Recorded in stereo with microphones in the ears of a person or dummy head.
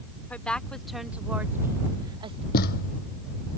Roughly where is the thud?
Left.